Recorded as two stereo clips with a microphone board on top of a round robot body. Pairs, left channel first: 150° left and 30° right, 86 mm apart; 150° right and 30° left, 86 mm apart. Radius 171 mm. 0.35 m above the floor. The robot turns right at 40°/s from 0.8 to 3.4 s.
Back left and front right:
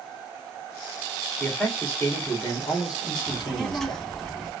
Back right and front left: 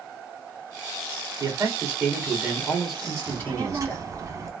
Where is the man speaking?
65° left, 1.9 m; by 4.0 s 145° left, 1.9 m.